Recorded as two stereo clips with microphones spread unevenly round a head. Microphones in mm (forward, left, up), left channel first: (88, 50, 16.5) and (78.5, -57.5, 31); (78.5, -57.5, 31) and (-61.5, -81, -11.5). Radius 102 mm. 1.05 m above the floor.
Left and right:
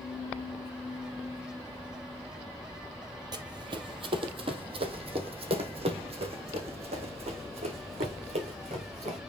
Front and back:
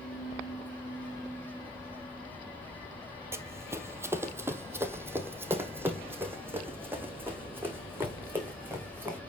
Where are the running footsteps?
90° right, 1.5 m.